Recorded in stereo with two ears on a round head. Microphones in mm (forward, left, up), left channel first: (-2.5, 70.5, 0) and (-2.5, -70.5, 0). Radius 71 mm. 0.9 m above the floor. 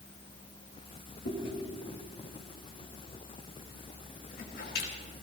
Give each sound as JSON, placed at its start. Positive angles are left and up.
{"t": 1.2, "sound": "chewing", "side_deg": 65, "distance_m": 3.5}